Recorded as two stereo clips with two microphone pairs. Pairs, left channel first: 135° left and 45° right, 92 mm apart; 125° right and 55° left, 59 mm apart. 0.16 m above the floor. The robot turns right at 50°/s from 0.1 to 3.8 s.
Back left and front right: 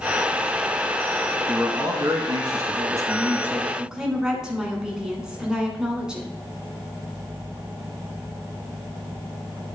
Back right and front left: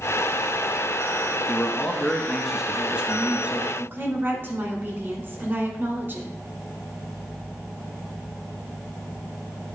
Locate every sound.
1.5 s a man speaking: 90° right, 1.2 m; by 3.7 s 20° left, 1.2 m
3.8 s a woman speaking: 30° left, 1.8 m